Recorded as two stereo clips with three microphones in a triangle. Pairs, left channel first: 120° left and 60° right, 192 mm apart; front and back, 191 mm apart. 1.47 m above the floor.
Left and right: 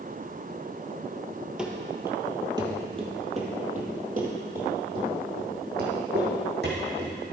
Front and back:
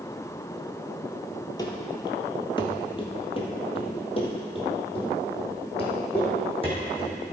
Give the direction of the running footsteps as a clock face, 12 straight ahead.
11 o'clock.